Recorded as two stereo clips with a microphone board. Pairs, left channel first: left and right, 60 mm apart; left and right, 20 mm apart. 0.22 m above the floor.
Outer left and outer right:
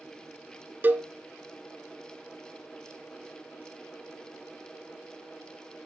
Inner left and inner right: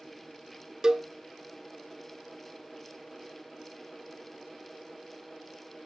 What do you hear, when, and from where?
0.8 s a cowbell: 35° right (ahead or behind), 1.0 m